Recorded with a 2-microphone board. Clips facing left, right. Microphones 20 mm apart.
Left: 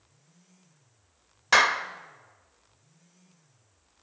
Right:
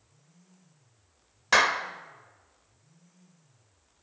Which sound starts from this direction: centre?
A clap, at 1.5 s.